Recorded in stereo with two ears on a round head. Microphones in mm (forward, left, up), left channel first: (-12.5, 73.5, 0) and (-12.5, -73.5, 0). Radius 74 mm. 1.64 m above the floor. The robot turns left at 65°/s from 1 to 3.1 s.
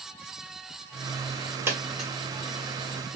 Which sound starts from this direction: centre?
A dropped coin, at 1.7 s.